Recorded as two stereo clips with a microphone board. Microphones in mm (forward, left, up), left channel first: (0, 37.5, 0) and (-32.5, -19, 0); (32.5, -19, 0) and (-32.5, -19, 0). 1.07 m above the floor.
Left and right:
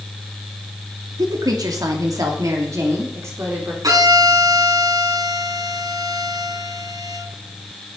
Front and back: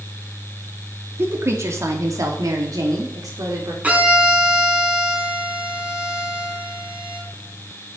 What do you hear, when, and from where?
1.2 s a woman speaking: 130° right, 2.5 m; by 3.7 s 165° right, 3.5 m
3.8 s a violin: 110° right, 3 m